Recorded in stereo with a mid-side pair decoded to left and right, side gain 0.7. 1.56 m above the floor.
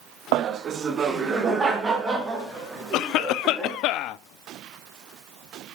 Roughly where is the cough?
Ahead left.